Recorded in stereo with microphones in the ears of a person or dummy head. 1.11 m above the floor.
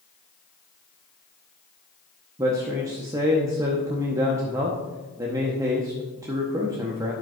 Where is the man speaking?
15° right (ahead or behind), 0.7 m.